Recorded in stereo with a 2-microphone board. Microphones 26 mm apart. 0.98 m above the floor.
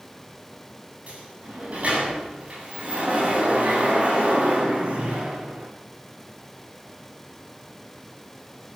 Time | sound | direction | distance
1.1 | a sliding door | 60° right (ahead or behind) | 7.5 m